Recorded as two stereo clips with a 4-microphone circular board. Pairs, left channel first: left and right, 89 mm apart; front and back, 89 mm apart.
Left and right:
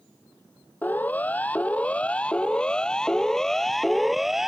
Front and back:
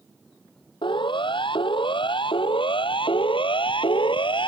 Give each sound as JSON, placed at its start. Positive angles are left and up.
{"t": 0.8, "sound": "a siren", "azimuth_deg": 20}